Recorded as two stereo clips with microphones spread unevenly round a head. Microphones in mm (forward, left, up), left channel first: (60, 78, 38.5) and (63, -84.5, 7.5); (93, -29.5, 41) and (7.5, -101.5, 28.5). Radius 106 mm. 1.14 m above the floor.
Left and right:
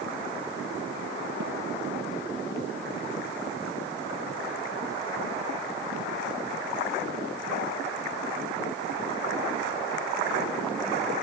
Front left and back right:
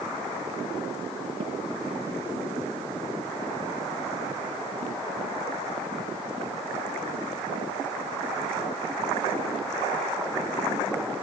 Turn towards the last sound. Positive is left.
turn(degrees=-100)